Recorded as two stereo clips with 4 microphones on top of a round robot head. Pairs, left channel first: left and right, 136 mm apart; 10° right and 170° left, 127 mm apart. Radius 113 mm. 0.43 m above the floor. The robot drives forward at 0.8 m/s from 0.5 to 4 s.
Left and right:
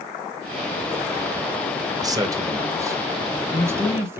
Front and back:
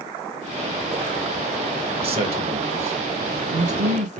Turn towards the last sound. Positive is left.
turn(degrees=-160)